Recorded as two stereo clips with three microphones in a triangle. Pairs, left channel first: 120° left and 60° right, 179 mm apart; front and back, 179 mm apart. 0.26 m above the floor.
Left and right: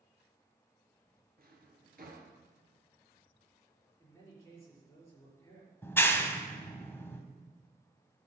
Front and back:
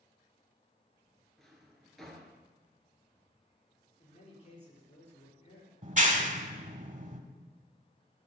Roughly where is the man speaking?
Ahead left.